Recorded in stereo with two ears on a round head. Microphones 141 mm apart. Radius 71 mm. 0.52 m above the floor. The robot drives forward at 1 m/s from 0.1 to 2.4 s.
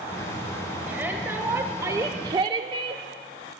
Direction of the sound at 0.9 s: 10° right (ahead or behind).